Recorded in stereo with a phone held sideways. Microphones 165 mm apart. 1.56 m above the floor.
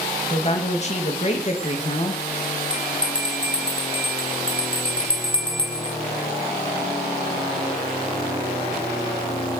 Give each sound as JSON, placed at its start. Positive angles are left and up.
{"t": 0.3, "sound": "a woman speaking", "side_deg": 40, "distance_m": 2.5}
{"t": 2.7, "sound": "a bell", "side_deg": 30, "distance_m": 1.7}